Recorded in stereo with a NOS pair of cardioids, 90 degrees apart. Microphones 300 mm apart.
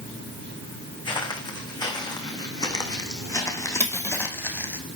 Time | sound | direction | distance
1.1 | footsteps | 15° left | 6 m
3.8 | cutlery clinking | 10° left | 5 m